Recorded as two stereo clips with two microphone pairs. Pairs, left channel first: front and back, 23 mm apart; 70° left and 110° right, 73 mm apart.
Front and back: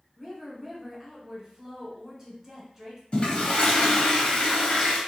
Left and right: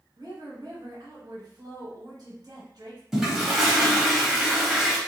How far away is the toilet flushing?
About 0.8 m.